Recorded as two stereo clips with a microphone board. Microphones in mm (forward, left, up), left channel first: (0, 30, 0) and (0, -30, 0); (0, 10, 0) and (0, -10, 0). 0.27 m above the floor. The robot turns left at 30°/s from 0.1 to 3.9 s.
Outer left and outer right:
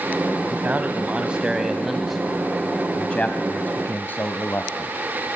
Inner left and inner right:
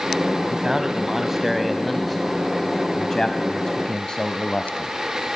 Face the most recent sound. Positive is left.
turn(degrees=125)